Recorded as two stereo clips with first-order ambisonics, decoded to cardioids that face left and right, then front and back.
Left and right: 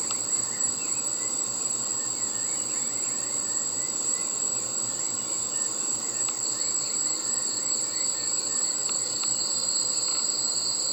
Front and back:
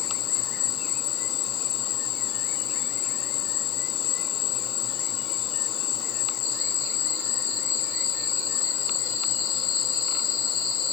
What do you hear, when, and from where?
0.0 s an insect: 10° right